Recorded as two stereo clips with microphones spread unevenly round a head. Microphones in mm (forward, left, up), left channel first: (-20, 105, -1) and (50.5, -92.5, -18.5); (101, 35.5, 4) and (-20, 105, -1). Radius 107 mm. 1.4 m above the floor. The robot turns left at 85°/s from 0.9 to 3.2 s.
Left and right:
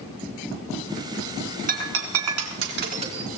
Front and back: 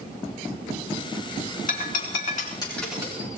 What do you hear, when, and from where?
1.7 s breaking glass: 20° right, 3 m; by 3.3 s 150° right, 3 m